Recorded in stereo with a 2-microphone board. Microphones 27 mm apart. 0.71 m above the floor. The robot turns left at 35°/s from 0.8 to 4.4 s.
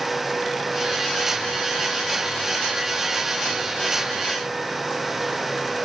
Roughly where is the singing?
No singing in this recording.